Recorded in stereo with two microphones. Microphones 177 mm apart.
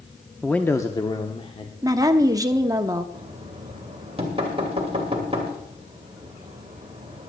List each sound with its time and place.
0.4 s a man speaking: 5° left (ahead or behind), 0.6 m; by 1.7 s 35° left (ahead or behind), 1.1 m
1.8 s a woman speaking: 20° right (ahead or behind), 0.8 m
3.1 s knocking: 35° right (ahead or behind), 2.5 m